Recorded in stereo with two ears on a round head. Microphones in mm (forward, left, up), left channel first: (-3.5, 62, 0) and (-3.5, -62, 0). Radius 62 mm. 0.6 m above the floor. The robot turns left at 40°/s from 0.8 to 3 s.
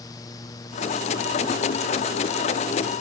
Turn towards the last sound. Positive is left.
No sound to turn to.